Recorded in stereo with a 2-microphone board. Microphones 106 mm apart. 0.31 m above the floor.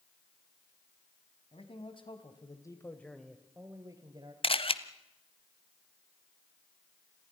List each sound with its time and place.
1.5 s a man speaking: 60° left (ahead or behind), 3 m; by 4.3 s 45° right (ahead or behind), 2.5 m
4.4 s a camera shutter: 60° left (ahead or behind), 1.1 m